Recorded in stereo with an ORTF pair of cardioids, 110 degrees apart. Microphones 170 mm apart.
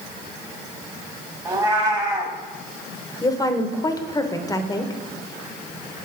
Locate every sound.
1.4 s a cat meowing: 20° right, 1.6 m
3.2 s a woman speaking: 20° left, 1.0 m